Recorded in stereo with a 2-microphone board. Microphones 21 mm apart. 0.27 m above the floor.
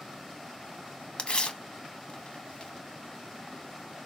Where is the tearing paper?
55° left (ahead or behind), 0.5 m.